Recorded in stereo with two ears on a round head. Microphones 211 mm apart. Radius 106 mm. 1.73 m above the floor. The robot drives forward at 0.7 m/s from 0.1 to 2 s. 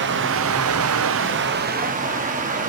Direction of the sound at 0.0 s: 50° right (ahead or behind).